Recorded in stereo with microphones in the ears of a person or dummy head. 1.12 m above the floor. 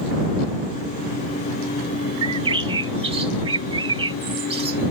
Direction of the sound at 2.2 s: 40° right (ahead or behind).